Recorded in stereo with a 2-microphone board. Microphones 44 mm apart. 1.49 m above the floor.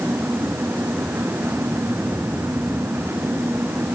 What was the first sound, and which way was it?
Only background noise.